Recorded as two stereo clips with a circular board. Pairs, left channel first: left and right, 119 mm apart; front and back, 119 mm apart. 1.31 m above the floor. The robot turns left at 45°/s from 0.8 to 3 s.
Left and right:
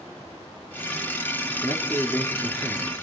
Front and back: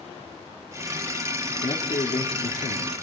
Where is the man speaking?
40° left, 4 m; by 3.0 s 25° right, 4 m.